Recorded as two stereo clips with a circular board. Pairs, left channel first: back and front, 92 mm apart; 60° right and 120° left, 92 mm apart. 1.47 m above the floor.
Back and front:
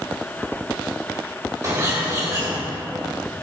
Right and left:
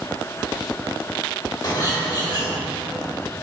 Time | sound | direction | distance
1.6 | a bird | 40° right | 1.6 m